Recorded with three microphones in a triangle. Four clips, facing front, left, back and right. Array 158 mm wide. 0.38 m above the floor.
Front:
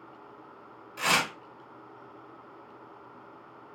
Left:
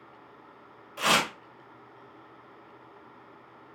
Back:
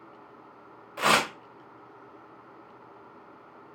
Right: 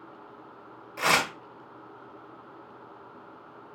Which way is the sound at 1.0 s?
170° right.